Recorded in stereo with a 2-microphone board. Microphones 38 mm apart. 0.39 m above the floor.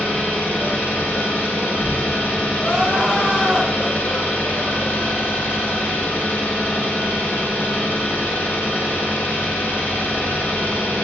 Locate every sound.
0.0 s an engine running: 70° left (ahead or behind), 0.9 m
2.6 s crying: centre (ahead or behind), 0.9 m